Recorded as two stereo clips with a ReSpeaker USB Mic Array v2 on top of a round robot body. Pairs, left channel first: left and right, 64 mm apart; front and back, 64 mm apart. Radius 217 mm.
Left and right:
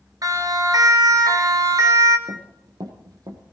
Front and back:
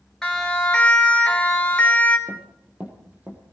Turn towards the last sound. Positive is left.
turn(degrees=-115)